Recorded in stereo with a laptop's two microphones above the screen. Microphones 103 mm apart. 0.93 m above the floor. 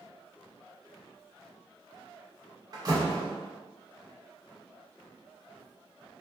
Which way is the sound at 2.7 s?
35° right (ahead or behind).